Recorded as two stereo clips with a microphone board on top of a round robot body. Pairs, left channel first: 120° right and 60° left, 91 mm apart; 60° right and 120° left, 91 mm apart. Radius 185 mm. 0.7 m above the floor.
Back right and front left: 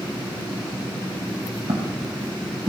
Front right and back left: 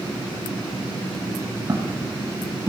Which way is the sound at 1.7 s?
65° left.